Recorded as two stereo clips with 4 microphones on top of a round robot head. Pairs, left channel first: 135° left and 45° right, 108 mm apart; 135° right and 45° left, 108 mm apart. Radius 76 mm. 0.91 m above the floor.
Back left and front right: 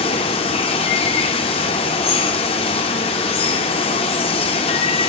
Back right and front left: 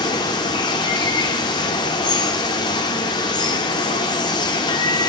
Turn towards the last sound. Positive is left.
turn(degrees=175)